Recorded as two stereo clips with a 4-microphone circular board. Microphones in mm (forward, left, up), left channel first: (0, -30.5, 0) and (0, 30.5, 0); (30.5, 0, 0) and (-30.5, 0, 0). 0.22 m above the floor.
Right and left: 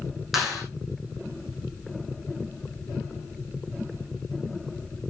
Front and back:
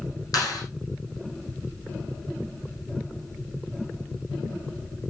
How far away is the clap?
About 8 m.